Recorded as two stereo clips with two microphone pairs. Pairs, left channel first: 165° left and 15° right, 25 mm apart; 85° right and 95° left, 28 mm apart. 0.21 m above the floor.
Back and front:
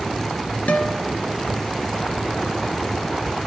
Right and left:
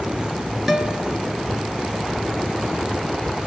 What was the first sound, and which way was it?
A guitar, 175° left.